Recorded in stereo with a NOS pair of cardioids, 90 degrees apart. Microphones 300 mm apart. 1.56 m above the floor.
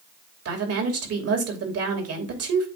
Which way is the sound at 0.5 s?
55° right.